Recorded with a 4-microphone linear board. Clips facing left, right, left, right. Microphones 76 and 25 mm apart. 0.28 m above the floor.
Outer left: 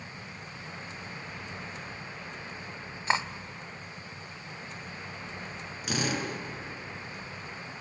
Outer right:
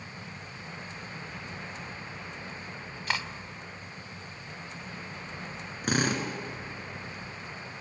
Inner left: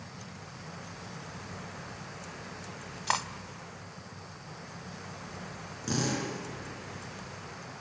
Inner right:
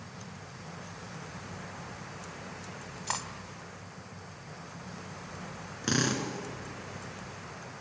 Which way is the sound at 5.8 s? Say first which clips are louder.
Outer right 3 dB, inner right 2 dB; 45° right (ahead or behind).